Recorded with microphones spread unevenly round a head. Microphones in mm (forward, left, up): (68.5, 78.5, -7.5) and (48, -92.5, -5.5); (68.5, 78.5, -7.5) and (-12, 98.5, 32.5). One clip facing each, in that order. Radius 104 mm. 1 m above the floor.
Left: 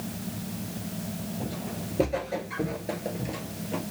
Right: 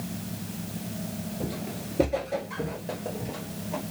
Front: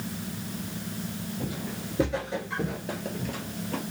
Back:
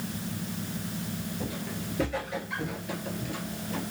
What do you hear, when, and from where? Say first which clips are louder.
1.4 s footsteps: right 1 dB, front 1 dB; 150° right, 1.0 m; by 3.8 s 30° left, 1.3 m